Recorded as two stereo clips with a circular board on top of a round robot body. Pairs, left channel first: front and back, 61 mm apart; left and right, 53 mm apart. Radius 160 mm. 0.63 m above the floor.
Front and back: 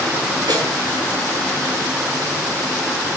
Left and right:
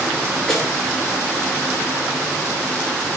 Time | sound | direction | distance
0.5 | a snare drum | 175° left | 9 m